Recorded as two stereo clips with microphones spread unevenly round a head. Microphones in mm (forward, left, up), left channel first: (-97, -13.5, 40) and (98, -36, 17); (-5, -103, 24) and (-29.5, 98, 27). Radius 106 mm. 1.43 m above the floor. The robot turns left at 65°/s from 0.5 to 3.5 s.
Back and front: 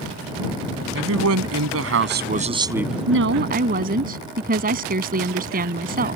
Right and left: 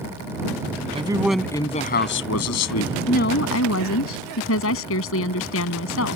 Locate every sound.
0.9 s a man speaking: 30° left; by 2.9 s 95° right
3.1 s a woman speaking: 25° right; by 6.2 s 55° right